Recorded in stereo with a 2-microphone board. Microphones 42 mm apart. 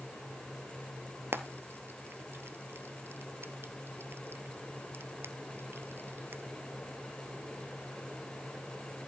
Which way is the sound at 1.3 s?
60° right (ahead or behind).